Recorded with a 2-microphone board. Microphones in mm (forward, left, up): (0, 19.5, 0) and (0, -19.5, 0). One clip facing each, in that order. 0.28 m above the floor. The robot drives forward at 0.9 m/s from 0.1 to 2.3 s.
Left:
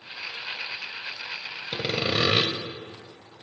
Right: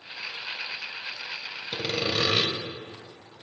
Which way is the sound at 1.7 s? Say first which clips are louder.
Left 1 dB; 15° left (ahead or behind).